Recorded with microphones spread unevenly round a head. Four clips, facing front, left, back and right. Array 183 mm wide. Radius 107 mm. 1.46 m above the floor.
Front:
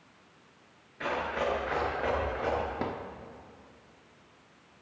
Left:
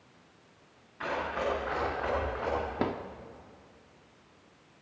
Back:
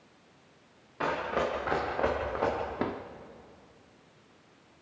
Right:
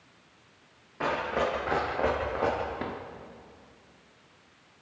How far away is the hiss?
I don't hear a hiss.